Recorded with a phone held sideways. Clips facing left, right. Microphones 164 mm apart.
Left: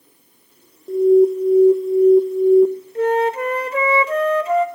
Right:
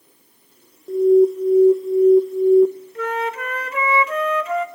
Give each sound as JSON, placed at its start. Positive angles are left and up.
{"t": 0.9, "sound": "an alarm", "side_deg": 5, "distance_m": 0.9}
{"t": 3.0, "sound": "a flute", "side_deg": 30, "distance_m": 1.1}